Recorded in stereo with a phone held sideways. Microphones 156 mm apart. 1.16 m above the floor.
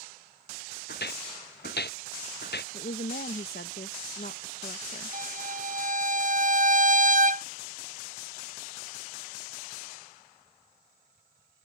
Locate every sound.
0.9 s footsteps: 80° left; by 2.6 s 85° left
2.7 s a woman speaking: 75° left (ahead or behind)
5.1 s a violin: 55° right (ahead or behind)